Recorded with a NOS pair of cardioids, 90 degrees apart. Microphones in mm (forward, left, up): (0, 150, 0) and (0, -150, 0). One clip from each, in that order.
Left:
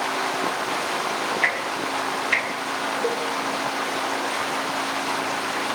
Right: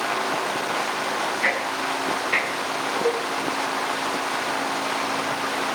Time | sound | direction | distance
1.4 | ticking | 60° left | 6.5 m
3.0 | a cowbell | 35° left | 2.5 m